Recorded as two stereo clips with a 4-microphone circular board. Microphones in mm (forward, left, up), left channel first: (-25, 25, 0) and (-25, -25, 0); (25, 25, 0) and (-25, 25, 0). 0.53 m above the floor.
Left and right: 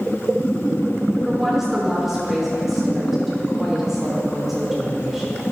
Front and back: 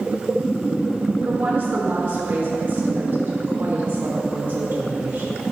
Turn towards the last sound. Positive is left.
turn(degrees=-175)